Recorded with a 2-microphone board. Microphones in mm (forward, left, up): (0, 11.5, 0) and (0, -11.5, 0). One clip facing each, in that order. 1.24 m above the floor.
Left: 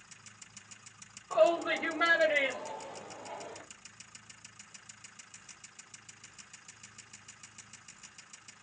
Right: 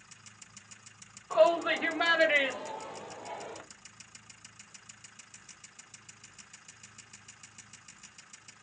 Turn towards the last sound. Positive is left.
turn(degrees=-70)  # may be behind; listen again after turning